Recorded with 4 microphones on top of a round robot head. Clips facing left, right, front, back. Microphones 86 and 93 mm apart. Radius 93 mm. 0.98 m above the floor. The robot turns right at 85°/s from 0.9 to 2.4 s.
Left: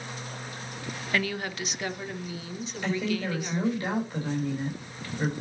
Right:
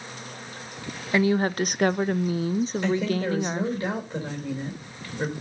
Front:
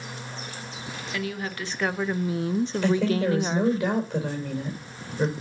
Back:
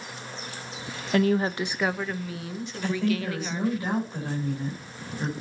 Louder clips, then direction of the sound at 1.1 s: Right 9 dB, back 10 dB; 160° right.